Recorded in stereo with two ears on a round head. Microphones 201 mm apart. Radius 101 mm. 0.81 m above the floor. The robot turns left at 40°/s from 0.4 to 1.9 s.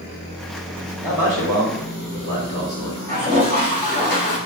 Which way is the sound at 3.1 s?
10° left (ahead or behind).